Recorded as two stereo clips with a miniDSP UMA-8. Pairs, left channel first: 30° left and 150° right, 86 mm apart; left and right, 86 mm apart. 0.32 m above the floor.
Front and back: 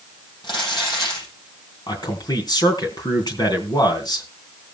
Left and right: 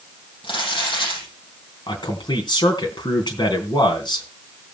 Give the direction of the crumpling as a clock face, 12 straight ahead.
10 o'clock.